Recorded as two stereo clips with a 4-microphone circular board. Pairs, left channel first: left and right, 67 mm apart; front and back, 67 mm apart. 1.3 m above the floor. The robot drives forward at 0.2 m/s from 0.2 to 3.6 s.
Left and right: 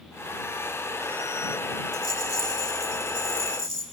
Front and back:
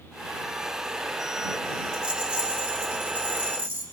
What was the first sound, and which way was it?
A rattle, 110° left.